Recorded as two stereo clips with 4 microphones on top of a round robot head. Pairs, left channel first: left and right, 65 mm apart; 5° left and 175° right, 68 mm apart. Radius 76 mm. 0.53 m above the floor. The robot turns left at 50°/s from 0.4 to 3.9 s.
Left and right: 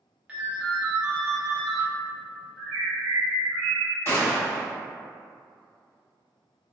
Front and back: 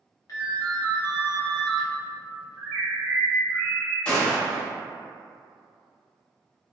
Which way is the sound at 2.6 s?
140° right.